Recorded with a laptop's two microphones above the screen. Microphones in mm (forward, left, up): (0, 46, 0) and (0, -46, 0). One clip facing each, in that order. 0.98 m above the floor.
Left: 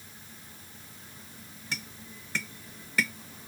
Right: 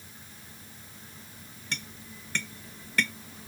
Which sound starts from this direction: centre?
Tapping, at 1.7 s.